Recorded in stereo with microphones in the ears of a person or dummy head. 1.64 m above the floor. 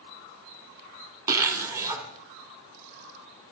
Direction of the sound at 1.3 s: 20° right (ahead or behind).